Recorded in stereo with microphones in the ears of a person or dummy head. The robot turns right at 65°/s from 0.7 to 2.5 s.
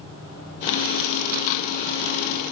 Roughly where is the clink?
No clink in this recording.